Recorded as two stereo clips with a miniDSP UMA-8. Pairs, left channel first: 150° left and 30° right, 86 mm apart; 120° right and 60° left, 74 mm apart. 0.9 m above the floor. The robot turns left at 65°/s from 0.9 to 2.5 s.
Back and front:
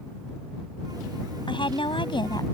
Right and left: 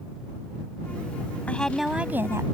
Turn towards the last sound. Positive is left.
turn(degrees=105)